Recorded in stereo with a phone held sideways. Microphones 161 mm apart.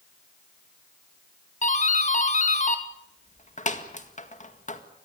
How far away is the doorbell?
About 1.9 m.